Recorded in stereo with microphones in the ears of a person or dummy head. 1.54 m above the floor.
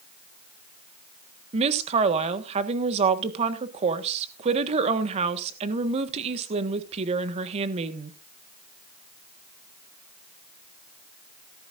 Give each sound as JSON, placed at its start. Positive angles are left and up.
{"t": 1.5, "sound": "a woman speaking", "side_deg": -35, "distance_m": 1.5}